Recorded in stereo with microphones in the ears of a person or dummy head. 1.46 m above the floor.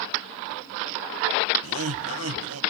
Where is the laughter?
60° right (ahead or behind), 1.8 m.